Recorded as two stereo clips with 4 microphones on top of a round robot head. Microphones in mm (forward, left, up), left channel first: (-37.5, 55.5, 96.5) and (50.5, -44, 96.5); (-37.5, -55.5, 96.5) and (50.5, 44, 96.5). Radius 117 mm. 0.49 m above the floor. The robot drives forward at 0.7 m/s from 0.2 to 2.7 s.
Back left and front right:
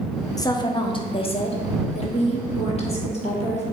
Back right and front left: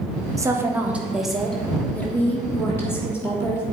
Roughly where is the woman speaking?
Left.